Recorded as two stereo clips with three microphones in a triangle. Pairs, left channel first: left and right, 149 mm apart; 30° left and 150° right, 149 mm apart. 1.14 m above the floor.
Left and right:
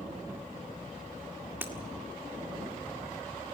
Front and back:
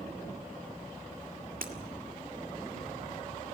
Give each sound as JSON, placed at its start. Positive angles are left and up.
{"t": 1.6, "sound": "breaking glass", "azimuth_deg": -165, "distance_m": 1.8}